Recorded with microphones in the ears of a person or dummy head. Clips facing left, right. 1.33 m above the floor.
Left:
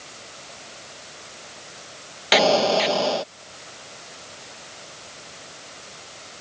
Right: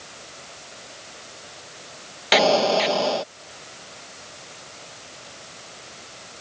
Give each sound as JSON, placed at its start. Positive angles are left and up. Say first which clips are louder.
{"t": 2.3, "sound": "an explosion", "louder": "even", "side_deg": 0}